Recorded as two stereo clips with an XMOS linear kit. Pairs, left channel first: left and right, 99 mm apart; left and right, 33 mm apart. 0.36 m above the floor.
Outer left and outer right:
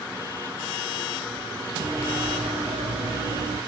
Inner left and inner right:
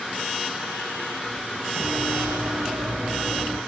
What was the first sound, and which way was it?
Running footsteps, 60° right (ahead or behind).